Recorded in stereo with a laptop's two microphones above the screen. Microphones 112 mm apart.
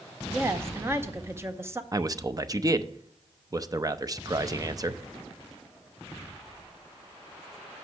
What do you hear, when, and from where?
0.2 s a woman speaking: 20° right (ahead or behind), 0.7 m
1.9 s a man speaking: 30° right (ahead or behind), 0.6 m